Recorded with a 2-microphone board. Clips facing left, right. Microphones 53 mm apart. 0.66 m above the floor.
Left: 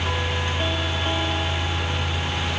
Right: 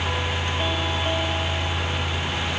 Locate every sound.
Only background noise.